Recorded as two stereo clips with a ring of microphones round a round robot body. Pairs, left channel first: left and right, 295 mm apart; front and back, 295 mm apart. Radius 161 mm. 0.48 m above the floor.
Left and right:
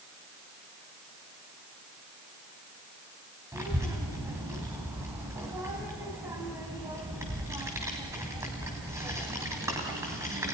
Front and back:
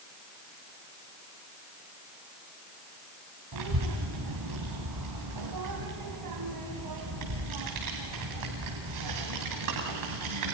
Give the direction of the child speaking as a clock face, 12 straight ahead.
6 o'clock.